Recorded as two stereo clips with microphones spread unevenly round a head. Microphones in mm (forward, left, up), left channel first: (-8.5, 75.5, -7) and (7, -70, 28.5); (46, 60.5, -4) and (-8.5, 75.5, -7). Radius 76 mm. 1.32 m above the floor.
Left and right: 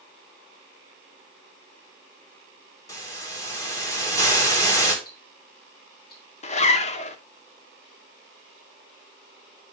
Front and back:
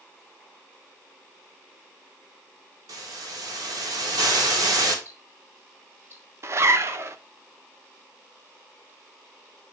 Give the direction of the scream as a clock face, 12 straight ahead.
No scream in this recording.